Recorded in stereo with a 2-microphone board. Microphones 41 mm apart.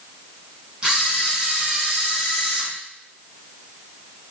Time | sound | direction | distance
0.8 | a camera shutter | 20° right (ahead or behind) | 3.5 m